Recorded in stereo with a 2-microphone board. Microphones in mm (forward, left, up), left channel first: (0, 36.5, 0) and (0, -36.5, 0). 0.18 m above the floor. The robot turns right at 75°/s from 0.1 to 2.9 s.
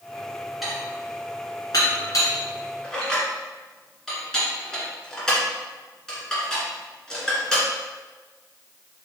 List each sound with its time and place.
0.6 s dishes clattering: 5° right (ahead or behind), 1.3 m; by 7.7 s 10° left (ahead or behind), 1.3 m